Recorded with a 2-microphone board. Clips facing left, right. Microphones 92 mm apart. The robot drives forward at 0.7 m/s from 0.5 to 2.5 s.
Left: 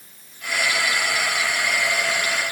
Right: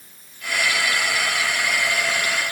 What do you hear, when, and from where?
Only background noise.